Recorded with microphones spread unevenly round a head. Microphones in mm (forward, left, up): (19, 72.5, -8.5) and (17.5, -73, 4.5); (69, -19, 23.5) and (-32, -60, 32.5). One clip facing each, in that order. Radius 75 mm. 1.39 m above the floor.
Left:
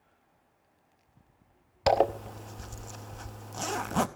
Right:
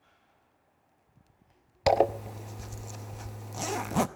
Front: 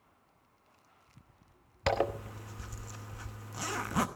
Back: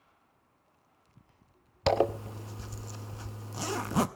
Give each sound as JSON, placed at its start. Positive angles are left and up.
{"t": 1.9, "sound": "a zipper", "azimuth_deg": -155, "distance_m": 0.7}